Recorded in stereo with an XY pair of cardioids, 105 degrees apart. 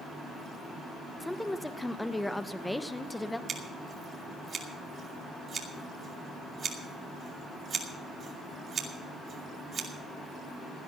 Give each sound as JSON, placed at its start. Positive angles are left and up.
{"t": 1.2, "sound": "a woman speaking", "azimuth_deg": 10, "distance_m": 0.9}
{"t": 3.5, "sound": "scissors", "azimuth_deg": -45, "distance_m": 2.5}